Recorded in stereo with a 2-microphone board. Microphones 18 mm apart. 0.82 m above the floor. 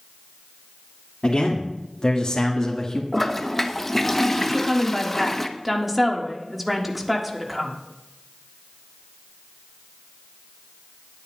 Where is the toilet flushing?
10° left (ahead or behind), 0.9 m.